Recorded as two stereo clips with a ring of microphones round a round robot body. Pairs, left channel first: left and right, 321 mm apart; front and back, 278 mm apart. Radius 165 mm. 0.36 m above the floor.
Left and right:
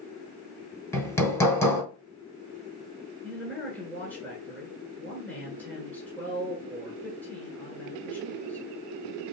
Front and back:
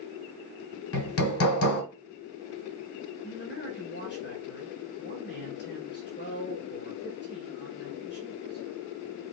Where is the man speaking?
10° left, 1.6 m.